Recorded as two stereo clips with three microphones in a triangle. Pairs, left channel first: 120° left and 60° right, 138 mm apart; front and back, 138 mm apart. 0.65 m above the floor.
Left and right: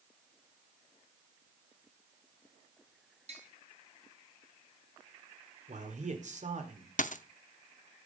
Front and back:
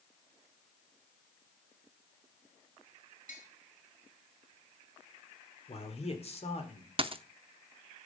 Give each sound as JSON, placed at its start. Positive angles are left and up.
{"t": 3.3, "sound": "tapping", "azimuth_deg": -20, "distance_m": 2.5}
{"t": 5.7, "sound": "a man speaking", "azimuth_deg": -40, "distance_m": 2.0}
{"t": 7.0, "sound": "a dropped coin", "azimuth_deg": 135, "distance_m": 0.5}